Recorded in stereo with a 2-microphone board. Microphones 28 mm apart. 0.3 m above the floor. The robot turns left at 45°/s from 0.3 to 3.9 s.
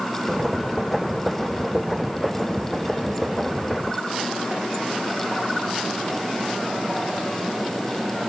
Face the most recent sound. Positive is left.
No sound to turn to.